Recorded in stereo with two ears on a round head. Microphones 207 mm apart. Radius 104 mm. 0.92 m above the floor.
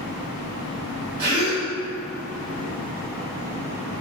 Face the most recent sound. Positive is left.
turn(degrees=-45)  # may be behind; listen again after turning